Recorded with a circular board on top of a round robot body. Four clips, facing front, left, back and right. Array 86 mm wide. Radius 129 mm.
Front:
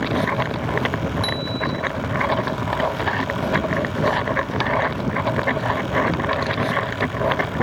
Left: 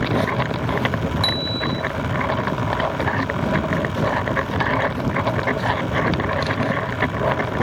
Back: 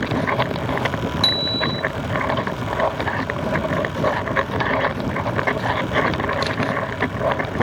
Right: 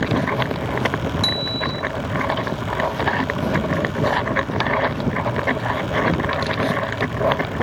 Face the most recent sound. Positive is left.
turn(degrees=-170)